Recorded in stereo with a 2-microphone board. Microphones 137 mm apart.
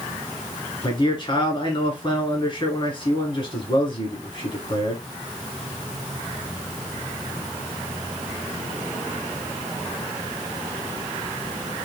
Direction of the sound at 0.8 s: 35° left (ahead or behind).